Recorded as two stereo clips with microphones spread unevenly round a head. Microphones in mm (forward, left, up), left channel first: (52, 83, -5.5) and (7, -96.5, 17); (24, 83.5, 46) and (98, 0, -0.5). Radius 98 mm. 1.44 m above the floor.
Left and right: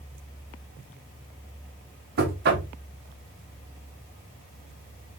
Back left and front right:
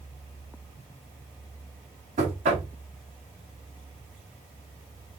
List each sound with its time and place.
2.2 s knocking: 70° right, 1.2 m